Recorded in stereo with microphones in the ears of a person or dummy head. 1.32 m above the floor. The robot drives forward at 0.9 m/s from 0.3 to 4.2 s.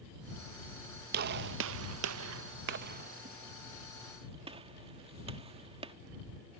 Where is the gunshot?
55° right (ahead or behind); by 5.9 s 25° right (ahead or behind).